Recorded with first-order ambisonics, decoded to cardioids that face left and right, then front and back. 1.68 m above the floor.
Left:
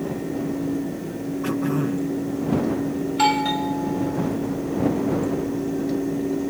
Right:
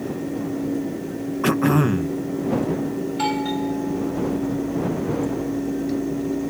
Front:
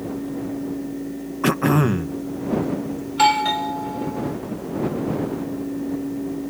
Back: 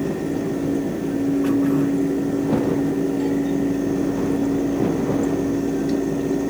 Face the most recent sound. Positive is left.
turn(degrees=15)